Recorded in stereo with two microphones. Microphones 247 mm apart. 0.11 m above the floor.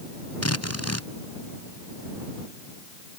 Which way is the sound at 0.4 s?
80° left.